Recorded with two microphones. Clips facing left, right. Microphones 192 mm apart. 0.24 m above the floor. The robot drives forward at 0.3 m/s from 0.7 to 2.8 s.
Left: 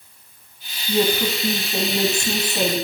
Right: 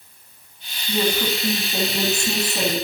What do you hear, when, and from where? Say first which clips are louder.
0.9 s a woman speaking: left 2 dB; 10° left (ahead or behind), 2.0 m